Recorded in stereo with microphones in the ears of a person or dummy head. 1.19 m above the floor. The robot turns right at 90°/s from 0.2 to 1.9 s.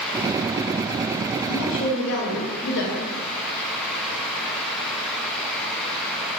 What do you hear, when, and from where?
1.5 s a woman speaking: 60° left, 0.9 m; by 3.1 s 100° left, 0.9 m